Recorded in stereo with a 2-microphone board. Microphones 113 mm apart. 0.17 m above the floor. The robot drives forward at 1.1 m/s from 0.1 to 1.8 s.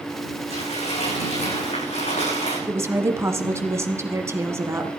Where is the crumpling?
70° left (ahead or behind), 9.5 m; by 2.6 s 80° left, 9.5 m.